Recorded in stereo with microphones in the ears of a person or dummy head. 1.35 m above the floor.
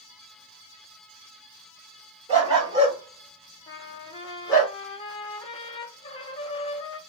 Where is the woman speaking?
I don't hear a woman speaking.